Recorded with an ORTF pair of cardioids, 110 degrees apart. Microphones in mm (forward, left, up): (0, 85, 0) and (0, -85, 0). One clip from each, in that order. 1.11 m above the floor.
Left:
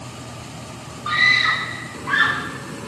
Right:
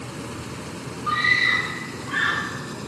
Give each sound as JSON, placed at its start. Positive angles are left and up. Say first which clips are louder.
{"t": 1.1, "sound": "a scream", "louder": "left 3 dB", "azimuth_deg": 65, "distance_m": 1.5}